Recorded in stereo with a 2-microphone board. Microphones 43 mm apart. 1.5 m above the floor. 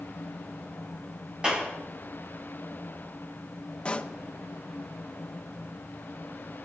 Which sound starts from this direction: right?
A clap, at 1.4 s.